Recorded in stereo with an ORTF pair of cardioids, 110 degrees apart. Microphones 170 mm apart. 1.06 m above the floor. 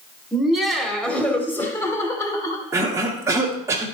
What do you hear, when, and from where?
0.3 s laughter: 5° right, 2 m; by 2.6 s 20° left, 3 m
2.7 s a cough: 15° right, 1.8 m